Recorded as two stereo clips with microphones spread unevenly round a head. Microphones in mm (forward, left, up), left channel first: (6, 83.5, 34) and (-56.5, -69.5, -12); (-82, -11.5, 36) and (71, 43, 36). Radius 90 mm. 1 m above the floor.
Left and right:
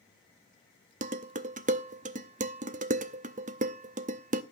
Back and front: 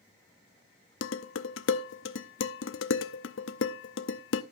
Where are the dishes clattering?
160° right, 0.8 m.